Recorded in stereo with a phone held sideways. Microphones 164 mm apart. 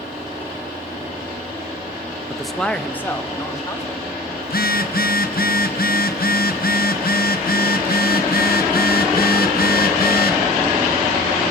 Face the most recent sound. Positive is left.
turn(degrees=65)  # may be behind; listen again after turning